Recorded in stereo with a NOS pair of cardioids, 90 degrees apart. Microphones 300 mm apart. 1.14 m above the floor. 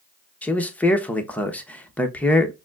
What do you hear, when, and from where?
0.4 s a man speaking: 5° left, 0.9 m